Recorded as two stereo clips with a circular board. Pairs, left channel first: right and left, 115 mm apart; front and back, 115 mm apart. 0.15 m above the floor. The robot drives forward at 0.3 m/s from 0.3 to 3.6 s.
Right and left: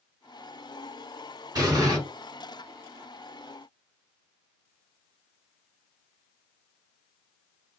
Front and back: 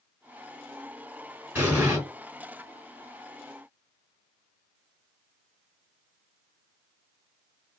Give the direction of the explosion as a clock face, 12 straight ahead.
8 o'clock.